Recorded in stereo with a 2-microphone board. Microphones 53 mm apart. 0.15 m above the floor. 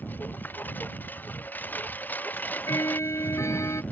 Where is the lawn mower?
35° left (ahead or behind); by 3.9 s 30° left (ahead or behind).